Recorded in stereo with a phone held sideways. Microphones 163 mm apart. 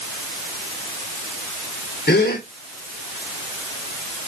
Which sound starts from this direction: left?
A gasp, at 2.1 s.